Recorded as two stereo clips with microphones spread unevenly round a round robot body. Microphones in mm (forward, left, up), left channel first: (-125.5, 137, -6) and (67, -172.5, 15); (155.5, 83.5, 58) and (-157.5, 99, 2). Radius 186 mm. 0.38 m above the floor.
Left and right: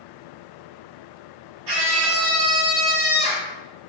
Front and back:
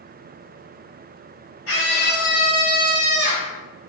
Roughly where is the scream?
Ahead right.